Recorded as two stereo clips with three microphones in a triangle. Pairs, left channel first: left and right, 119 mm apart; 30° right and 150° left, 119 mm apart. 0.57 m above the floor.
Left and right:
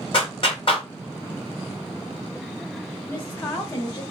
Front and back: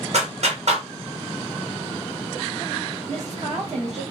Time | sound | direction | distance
0.1 | a clap | 130° left | 2.5 m
3.1 | a woman speaking | 140° left | 2.5 m